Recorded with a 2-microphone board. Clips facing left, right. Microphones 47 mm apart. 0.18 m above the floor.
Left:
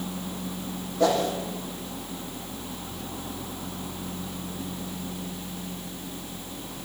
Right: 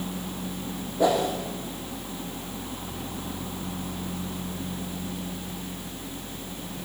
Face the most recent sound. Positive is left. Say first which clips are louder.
# even
turn(degrees=-15)  # may be behind; listen again after turning